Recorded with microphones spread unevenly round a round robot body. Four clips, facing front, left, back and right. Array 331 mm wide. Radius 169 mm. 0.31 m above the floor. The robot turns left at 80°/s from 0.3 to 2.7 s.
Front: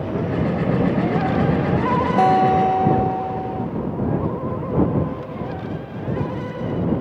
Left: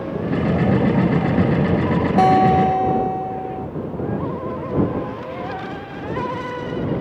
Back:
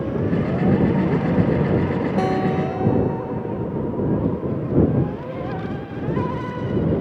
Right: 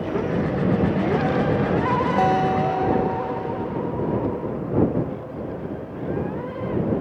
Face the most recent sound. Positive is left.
turn(degrees=30)